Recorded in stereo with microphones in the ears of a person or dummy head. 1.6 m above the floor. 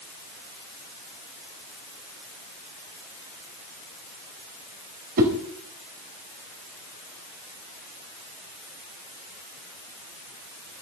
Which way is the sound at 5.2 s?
50° right (ahead or behind).